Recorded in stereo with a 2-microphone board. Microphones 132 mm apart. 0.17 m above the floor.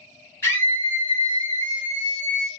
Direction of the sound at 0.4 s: 20° left (ahead or behind).